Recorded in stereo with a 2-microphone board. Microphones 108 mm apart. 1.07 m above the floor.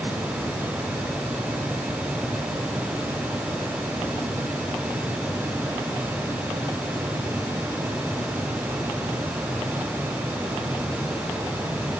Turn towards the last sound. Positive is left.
No sound to turn to.